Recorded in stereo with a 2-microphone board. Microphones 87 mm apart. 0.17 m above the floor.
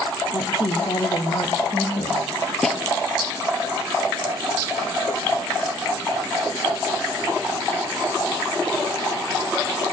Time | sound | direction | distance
0.3 | a woman speaking | 55° left (ahead or behind) | 5 m
2.6 | a snare drum | 5° left (ahead or behind) | 3.5 m